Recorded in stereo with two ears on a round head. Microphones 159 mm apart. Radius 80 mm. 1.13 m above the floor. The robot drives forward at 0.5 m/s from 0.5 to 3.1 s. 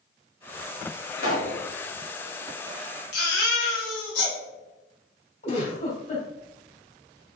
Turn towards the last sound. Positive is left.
turn(degrees=45)  # may be behind; listen again after turning